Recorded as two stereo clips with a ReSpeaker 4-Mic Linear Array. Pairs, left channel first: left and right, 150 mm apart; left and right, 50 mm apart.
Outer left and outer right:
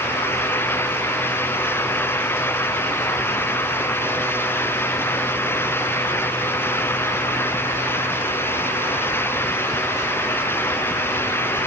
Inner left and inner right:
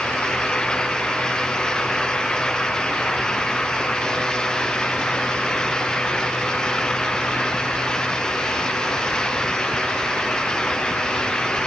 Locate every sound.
Only background noise.